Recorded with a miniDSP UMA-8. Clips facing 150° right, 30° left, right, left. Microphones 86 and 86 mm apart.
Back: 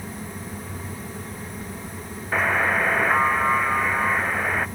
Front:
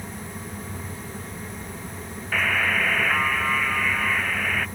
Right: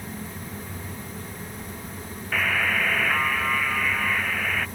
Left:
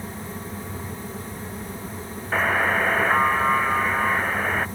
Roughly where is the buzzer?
Behind left.